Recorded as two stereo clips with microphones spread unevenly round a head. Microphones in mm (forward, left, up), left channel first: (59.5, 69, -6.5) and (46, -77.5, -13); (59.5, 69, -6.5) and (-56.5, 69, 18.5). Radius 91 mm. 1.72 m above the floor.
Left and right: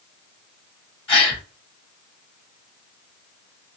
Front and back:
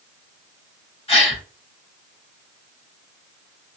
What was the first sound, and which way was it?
A gasp, 40° left.